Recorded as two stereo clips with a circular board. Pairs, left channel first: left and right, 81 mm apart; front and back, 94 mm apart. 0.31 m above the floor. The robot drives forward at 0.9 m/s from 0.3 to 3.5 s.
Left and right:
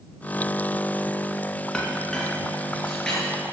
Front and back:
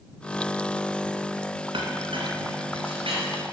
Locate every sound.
1.7 s a clink: 170° left, 1.9 m; by 3.2 s 175° left, 3 m